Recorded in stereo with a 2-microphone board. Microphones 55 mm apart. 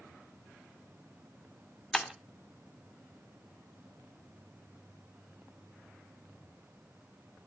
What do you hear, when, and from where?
1.9 s breaking glass: 5° left (ahead or behind), 2.0 m